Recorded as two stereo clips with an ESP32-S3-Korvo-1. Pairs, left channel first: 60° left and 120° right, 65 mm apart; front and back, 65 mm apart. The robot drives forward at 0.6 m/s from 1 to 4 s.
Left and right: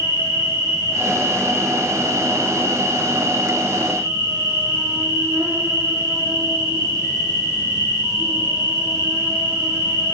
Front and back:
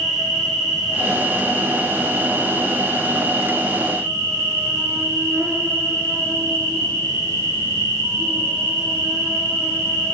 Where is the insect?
100° right, 1.8 m; by 10.1 s 145° right, 2.5 m.